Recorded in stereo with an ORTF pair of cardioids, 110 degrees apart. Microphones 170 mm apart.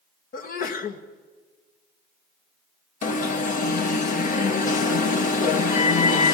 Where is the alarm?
50° left, 2.0 m.